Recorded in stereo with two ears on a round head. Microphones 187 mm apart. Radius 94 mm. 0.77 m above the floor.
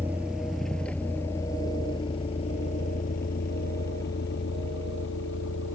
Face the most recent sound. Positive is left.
turn(degrees=60)  # may be behind; listen again after turning